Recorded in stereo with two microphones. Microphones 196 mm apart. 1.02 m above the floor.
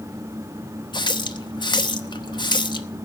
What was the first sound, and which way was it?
A running tap, 25° left (ahead or behind).